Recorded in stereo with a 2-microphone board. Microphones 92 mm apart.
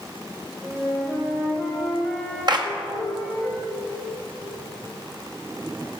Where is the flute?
10° right (ahead or behind), 3.5 m.